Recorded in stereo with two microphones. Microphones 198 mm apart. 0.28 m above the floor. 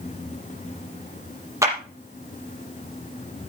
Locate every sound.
1.6 s a clap: 15° right (ahead or behind), 5.5 m